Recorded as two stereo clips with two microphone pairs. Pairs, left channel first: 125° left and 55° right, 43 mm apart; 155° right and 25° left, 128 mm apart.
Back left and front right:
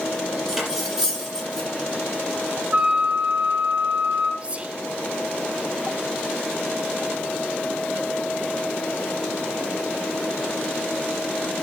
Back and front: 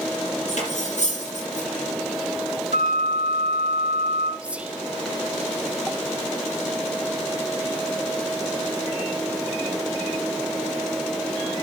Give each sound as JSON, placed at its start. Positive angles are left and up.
{"t": 0.5, "sound": "cutlery clinking", "azimuth_deg": -135, "distance_m": 6.0}
{"t": 2.7, "sound": "a flute", "azimuth_deg": 0, "distance_m": 3.0}
{"t": 4.4, "sound": "whispering", "azimuth_deg": -45, "distance_m": 0.9}